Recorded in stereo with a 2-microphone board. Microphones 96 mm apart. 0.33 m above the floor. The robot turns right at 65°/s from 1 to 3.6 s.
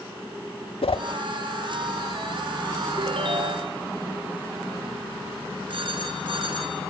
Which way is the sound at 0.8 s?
80° left.